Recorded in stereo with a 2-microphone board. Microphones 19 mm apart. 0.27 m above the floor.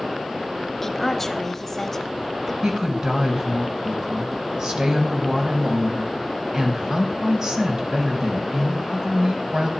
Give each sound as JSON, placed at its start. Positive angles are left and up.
{"t": 0.8, "sound": "a woman speaking", "side_deg": 15, "distance_m": 1.0}
{"t": 2.6, "sound": "a woman speaking", "side_deg": -40, "distance_m": 1.6}